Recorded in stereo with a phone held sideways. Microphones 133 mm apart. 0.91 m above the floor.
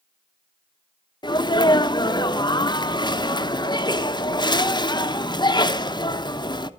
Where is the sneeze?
30° left (ahead or behind), 0.9 m.